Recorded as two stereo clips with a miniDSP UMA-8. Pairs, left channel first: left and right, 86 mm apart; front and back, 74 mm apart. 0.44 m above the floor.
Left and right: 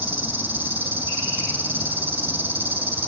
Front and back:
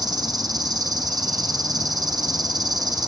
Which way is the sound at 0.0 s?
155° right.